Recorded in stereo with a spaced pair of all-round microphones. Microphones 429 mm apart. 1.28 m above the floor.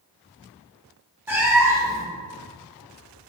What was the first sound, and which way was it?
A cat meowing, 5° right (ahead or behind).